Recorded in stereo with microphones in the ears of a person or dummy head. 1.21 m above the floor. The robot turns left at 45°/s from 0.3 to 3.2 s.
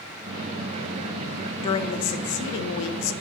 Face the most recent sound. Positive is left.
turn(degrees=85)